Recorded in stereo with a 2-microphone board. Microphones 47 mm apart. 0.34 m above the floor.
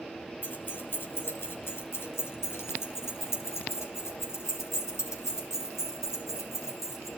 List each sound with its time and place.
0.4 s keys jangling: 40° left (ahead or behind), 3 m; by 7.1 s 80° left, 6 m